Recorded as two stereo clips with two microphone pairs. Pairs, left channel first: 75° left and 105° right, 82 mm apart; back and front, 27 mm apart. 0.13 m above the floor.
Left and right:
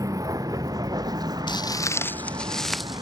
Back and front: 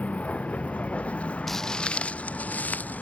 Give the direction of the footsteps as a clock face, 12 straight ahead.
9 o'clock.